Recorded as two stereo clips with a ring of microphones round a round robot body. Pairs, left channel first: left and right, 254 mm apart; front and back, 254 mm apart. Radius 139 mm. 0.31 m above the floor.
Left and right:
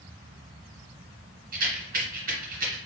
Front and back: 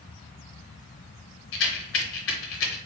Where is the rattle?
30° right, 1.0 m.